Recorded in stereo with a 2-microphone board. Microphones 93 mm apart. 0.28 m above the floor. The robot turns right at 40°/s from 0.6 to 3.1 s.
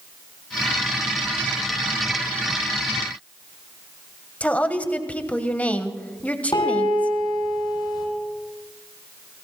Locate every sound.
4.4 s a woman speaking: 15° left (ahead or behind), 1.2 m
6.5 s a piano: 55° left (ahead or behind), 6.5 m